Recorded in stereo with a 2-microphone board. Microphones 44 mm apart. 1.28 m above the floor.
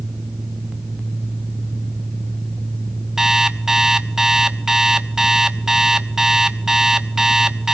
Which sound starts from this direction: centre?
An alarm clock, at 3.2 s.